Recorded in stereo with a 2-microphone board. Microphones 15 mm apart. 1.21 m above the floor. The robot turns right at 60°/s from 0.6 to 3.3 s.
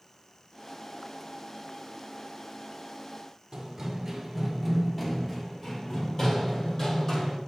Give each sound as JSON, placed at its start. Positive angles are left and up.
{"t": 3.5, "sound": "running footsteps", "side_deg": -30, "distance_m": 1.4}